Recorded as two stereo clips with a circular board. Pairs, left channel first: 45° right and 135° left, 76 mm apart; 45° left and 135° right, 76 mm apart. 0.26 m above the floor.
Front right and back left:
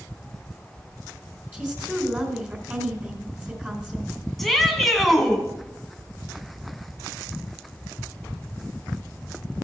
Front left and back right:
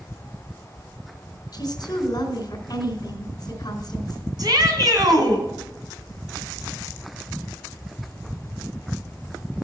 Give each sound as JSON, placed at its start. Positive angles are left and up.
{"t": 1.5, "sound": "a woman speaking", "azimuth_deg": 65, "distance_m": 2.5}
{"t": 4.4, "sound": "a shout", "azimuth_deg": -135, "distance_m": 2.5}